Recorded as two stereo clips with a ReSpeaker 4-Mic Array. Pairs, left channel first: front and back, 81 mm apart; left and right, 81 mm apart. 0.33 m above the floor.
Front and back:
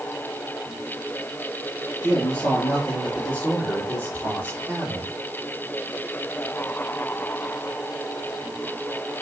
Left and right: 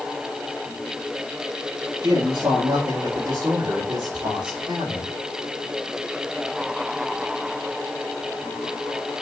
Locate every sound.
2.0 s a man speaking: 55° right, 4.5 m; by 5.1 s 65° right, 6 m